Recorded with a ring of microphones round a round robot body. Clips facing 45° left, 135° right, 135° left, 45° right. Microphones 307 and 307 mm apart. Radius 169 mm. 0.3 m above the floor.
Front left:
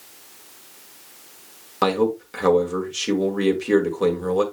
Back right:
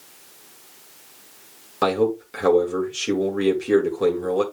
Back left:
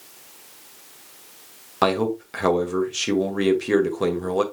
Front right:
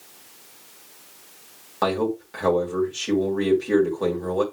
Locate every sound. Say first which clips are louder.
1.8 s a man speaking: even, back left 1 dB; 130° left, 2.0 m